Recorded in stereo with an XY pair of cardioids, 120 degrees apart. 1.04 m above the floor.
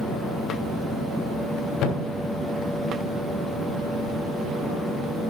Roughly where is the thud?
Left.